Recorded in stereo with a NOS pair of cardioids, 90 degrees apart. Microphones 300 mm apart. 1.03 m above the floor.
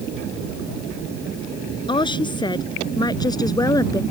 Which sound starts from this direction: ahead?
A woman speaking, at 1.9 s.